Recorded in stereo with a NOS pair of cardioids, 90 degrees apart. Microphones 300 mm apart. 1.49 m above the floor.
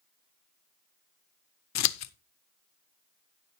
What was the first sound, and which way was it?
Scissors, 65° left.